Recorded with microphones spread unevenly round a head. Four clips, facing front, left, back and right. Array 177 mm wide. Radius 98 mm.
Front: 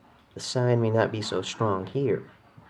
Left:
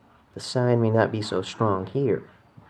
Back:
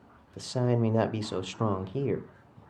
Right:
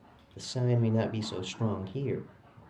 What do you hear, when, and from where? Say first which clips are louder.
0.4 s a man speaking: left 9 dB, front 3 dB; 65° left, 1.1 m